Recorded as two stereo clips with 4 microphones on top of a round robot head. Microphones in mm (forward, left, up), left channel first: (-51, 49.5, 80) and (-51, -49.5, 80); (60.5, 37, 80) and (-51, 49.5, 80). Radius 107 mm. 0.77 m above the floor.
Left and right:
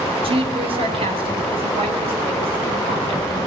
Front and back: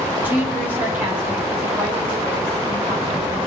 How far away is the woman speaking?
About 2.5 m.